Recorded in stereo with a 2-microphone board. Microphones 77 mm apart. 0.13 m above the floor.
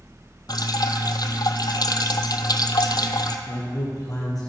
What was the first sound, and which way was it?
Dripping, 65° left (ahead or behind).